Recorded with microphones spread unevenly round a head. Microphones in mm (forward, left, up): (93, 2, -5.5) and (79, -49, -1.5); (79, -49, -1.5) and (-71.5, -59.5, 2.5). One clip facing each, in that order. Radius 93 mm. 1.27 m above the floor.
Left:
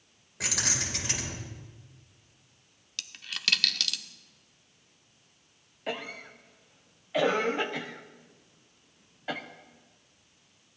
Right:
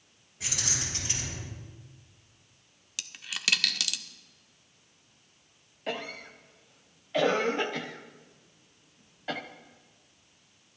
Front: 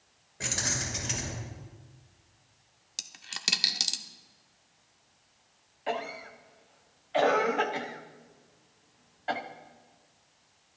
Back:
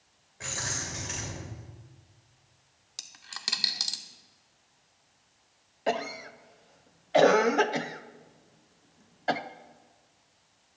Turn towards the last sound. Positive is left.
turn(degrees=155)